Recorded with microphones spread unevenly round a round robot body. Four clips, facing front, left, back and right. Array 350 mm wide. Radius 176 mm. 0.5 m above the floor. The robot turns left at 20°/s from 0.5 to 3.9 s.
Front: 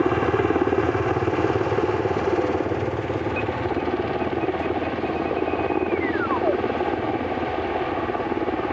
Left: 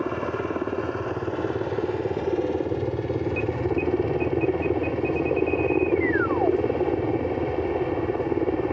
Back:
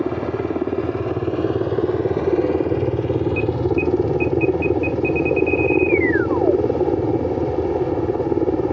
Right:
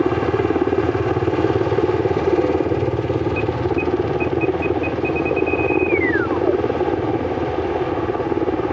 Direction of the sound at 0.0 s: 90° right.